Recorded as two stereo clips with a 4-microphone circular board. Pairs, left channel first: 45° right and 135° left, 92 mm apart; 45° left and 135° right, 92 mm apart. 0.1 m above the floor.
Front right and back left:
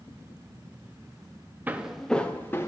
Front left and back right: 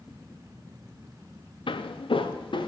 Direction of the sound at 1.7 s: 65° left.